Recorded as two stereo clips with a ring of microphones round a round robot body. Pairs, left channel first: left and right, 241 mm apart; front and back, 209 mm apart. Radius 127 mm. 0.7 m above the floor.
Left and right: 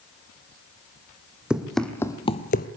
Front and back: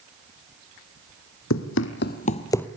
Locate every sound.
1.5 s running footsteps: 5° right, 1.5 m; by 2.7 s 85° left, 0.8 m